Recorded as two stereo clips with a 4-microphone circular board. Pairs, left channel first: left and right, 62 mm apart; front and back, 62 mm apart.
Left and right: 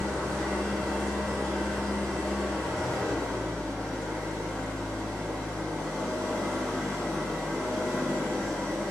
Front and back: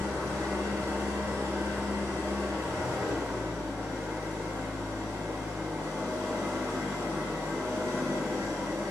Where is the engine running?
175° left, 0.9 m.